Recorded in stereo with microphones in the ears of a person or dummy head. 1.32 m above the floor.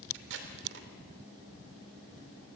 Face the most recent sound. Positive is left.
turn(degrees=-80)